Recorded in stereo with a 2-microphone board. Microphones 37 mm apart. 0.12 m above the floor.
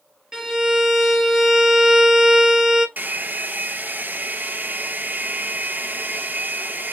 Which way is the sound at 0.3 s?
20° right (ahead or behind).